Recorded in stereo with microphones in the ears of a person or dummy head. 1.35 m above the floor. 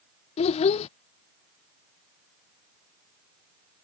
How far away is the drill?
No drill in this recording.